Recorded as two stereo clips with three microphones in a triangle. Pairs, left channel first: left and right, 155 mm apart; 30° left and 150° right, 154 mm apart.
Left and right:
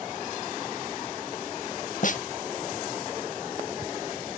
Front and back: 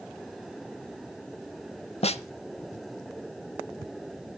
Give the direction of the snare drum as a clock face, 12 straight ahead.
10 o'clock.